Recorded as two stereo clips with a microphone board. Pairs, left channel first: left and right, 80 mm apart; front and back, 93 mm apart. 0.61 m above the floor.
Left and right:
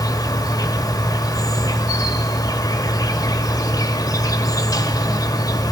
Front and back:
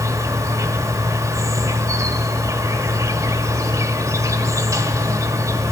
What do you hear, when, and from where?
0.0 s an insect: 125° left, 1.3 m